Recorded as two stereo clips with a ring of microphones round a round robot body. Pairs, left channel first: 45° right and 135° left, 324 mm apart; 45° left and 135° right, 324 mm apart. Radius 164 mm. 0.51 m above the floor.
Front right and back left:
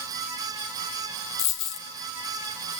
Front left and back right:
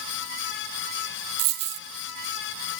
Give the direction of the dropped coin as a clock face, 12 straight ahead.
3 o'clock.